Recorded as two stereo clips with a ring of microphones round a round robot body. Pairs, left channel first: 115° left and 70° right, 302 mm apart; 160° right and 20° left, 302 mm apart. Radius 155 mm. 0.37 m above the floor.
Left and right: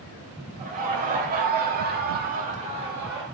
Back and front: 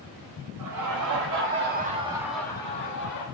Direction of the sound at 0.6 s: 5° right.